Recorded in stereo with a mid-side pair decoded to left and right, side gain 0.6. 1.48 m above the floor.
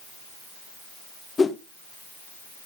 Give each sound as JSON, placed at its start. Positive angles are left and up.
{"t": 1.4, "sound": "a whoosh", "azimuth_deg": 25, "distance_m": 1.2}